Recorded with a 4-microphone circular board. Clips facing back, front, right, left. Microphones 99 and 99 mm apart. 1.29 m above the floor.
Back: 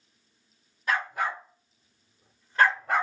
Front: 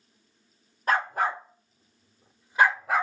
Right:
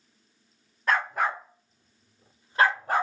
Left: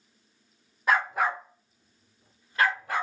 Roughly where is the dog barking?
Ahead.